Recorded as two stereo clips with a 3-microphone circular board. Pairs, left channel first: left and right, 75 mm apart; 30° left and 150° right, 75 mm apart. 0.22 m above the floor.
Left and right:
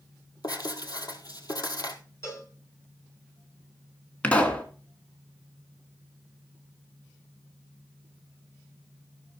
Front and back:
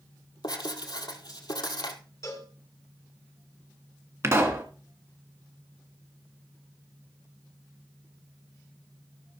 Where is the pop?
160° left, 1.6 m.